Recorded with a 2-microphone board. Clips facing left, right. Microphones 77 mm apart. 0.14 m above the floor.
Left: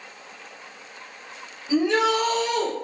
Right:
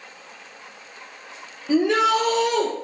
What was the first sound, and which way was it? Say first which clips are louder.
A shout: right 2 dB; 60° right (ahead or behind).